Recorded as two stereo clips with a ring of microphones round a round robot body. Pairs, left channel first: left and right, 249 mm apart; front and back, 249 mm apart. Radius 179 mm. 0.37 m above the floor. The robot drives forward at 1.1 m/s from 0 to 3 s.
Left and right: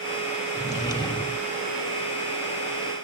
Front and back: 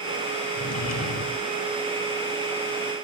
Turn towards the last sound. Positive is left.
turn(degrees=35)